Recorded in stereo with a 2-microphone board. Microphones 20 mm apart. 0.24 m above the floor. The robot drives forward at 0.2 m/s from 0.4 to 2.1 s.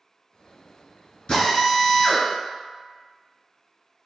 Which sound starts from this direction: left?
A drill, at 1.3 s.